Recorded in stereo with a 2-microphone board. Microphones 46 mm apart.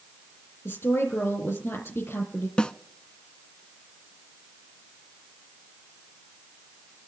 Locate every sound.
0.7 s a woman speaking: 65° left (ahead or behind), 3.5 m
2.6 s a snare drum: 20° left (ahead or behind), 0.6 m